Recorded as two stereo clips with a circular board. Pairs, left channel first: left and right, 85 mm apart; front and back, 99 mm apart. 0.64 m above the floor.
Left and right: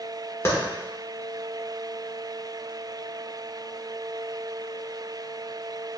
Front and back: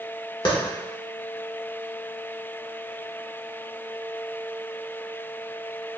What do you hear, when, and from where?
0.5 s a clap: 35° left, 1.3 m